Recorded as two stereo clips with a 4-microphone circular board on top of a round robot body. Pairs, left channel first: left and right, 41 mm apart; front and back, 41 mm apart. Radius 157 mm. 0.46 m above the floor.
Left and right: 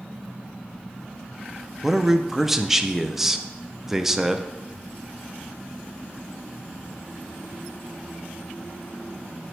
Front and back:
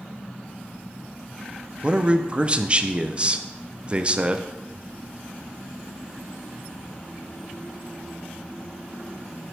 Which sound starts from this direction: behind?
A man speaking, at 1.8 s.